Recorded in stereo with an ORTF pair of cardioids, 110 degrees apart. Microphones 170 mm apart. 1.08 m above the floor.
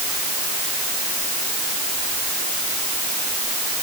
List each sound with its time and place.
Only background noise.